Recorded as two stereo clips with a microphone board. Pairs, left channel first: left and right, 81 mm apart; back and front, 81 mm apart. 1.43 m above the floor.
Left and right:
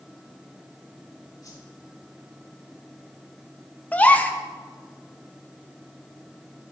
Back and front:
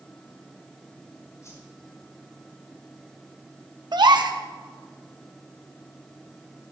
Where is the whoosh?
130° left, 4.5 m.